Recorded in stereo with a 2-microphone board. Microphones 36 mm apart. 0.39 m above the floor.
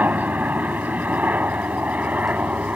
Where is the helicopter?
55° right (ahead or behind); by 2.8 s 50° right (ahead or behind).